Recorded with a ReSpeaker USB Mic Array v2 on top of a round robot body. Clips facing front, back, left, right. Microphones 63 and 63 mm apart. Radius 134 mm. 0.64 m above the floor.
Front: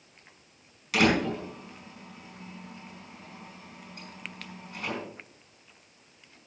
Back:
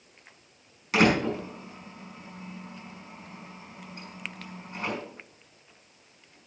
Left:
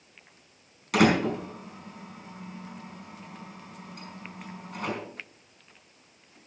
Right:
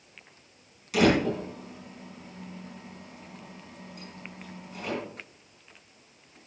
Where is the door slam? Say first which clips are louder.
Back 2 dB, even; 120° left, 4.5 m.